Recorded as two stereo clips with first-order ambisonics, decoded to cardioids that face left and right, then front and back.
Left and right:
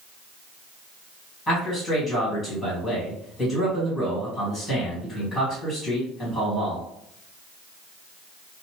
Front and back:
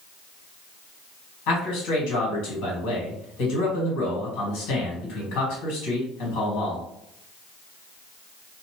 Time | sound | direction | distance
1.5 | a man speaking | 15° left | 1.5 m